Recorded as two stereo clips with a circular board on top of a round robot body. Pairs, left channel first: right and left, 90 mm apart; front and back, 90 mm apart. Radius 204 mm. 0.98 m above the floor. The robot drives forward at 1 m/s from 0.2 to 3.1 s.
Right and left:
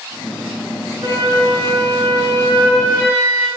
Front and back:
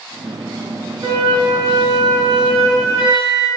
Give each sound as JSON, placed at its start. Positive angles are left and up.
{"t": 1.0, "sound": "a flute", "azimuth_deg": 145, "distance_m": 3.0}